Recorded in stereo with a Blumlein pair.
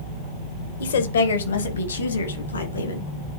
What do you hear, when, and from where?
0.8 s a woman speaking: 65° left, 1.0 m; by 3.1 s 75° left, 3 m